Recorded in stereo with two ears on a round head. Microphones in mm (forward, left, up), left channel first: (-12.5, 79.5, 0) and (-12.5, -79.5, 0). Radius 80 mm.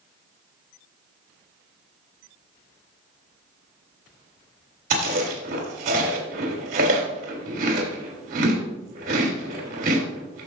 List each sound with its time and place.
4.9 s chewing: 55° right (ahead or behind), 2.5 m